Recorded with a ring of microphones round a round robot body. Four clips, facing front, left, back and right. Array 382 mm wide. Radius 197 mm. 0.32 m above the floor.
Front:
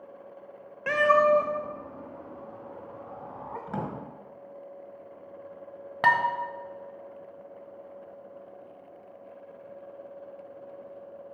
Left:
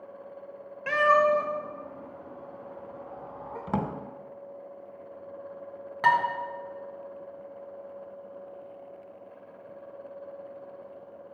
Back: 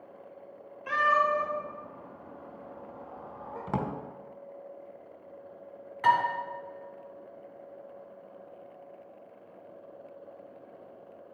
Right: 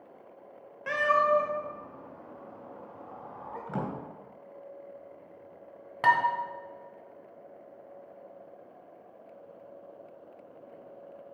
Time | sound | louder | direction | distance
0.9 | a cat meowing | left 3 dB, front 5 dB | 10° left | 0.6 m
3.7 | a drawer | left 5 dB, back 3 dB | 120° left | 1.0 m
6.0 | dishes clattering | left 1 dB, even | 5° right | 1.4 m